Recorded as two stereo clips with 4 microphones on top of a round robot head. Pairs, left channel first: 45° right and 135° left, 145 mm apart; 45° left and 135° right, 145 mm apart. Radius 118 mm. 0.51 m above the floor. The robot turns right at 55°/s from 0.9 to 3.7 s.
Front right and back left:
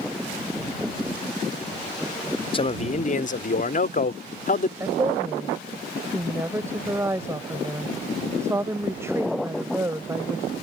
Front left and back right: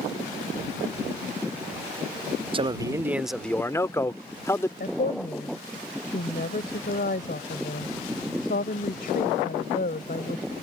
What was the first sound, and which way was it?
A man speaking, 90° right.